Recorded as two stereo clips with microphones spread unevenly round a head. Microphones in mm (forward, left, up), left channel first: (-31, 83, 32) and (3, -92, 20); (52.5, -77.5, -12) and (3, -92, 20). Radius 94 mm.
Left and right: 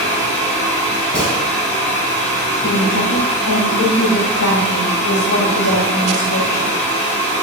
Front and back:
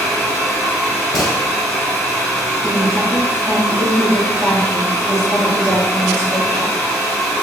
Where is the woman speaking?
115° left, 0.7 m.